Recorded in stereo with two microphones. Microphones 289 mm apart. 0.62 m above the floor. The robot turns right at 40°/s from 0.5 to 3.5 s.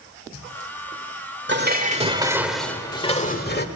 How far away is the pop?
No pop in this recording.